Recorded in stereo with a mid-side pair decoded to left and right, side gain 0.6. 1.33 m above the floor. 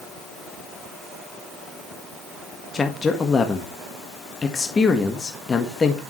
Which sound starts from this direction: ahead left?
A man speaking, at 2.7 s.